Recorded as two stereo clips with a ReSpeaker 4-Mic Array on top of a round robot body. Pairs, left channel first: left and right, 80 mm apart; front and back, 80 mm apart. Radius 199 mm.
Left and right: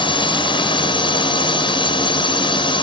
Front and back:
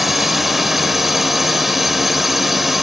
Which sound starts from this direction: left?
A drone, at 0.0 s.